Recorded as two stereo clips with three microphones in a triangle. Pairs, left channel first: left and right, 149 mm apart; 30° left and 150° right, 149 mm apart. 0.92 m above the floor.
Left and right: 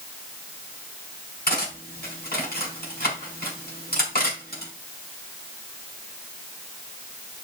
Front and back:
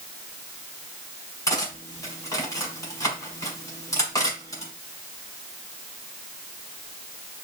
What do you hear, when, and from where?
1.5 s cutlery clinking: 100° left, 4.5 m